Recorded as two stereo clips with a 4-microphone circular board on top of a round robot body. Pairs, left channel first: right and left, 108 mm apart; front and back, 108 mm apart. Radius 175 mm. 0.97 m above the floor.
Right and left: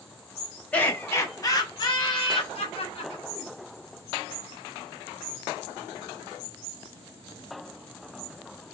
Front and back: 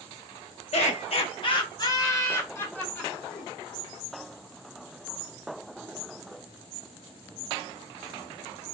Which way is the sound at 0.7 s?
15° right.